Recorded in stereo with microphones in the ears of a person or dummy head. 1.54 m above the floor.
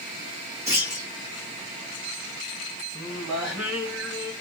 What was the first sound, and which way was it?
A clunk, 20° right (ahead or behind).